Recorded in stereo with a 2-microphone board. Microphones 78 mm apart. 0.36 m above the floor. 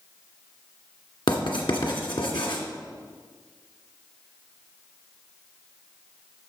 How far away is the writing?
About 2 m.